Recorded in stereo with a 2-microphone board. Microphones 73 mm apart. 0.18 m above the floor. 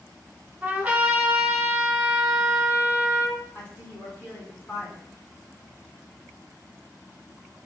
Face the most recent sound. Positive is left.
turn(degrees=35)  # may be behind; listen again after turning